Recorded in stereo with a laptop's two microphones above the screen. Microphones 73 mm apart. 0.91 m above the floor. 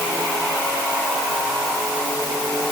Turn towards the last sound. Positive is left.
No sound to turn to.